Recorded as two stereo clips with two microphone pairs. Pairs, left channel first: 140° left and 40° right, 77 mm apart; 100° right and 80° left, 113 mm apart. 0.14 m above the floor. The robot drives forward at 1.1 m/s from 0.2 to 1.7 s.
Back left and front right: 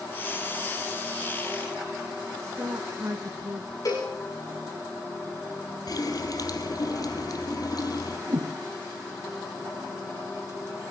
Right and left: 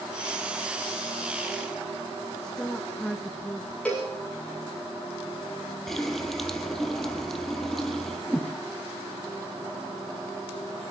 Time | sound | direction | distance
2.4 | a woman speaking | 20° right | 1.4 m
3.9 | a cowbell | straight behind | 6.5 m
5.9 | a running tap | 175° left | 3 m
8.3 | a whoosh | 15° right | 1.7 m